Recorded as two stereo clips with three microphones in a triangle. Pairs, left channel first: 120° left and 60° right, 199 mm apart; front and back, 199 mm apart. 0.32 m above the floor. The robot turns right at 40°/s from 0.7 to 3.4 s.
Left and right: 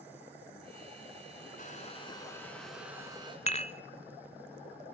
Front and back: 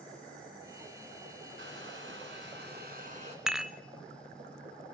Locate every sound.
1.6 s a hair dryer: 165° left, 2.5 m; by 3.4 s 125° right, 2.5 m
3.5 s dishes clattering: 95° left, 0.6 m